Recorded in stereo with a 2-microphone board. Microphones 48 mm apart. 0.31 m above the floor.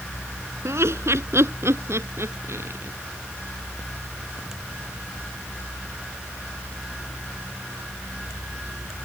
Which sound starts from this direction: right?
Laughter, at 0.7 s.